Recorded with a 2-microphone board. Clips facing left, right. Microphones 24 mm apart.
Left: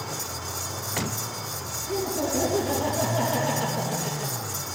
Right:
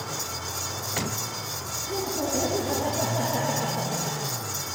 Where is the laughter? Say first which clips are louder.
Left 2 dB; 20° left (ahead or behind), 3 m.